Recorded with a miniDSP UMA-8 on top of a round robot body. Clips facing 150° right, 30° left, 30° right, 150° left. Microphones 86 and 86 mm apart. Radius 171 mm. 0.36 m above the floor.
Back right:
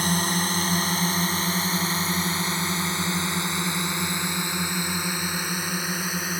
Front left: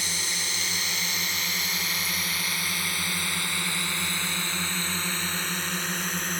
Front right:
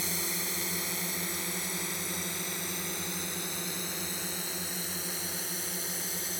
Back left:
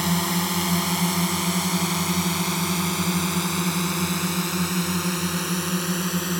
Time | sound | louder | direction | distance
0.0 | a drone | back right 10 dB, back left 14 dB | 170° left | ?